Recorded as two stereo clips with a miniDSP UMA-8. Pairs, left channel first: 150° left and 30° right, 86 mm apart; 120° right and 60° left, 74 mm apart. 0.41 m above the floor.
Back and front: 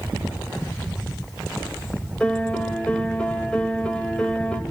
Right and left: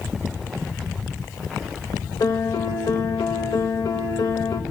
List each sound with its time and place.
2.2 s a piano: 135° right, 0.8 m